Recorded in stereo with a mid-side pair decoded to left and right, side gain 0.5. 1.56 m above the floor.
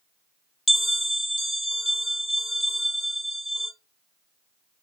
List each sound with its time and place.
0.7 s a bell: 10° left, 1.5 m